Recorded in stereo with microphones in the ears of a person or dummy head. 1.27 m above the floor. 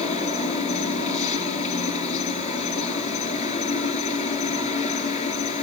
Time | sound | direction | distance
0.0 | an insect | 35° left (ahead or behind) | 5.5 m